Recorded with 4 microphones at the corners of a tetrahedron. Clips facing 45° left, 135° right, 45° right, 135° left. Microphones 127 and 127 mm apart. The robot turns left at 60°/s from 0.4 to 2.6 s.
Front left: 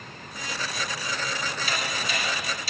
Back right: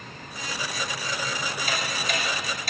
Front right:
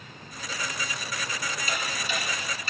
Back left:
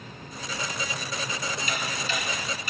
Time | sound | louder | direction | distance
1.7 | ticking | back right 2 dB, back left 1 dB | 90° right | 1.8 m